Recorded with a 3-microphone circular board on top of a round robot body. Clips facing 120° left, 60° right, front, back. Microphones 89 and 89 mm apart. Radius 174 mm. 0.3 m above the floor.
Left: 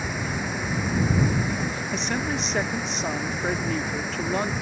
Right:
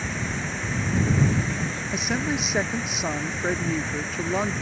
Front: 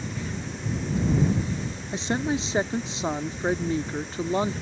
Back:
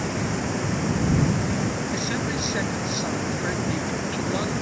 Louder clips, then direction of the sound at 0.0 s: Left 1 dB, back 7 dB; 160° right.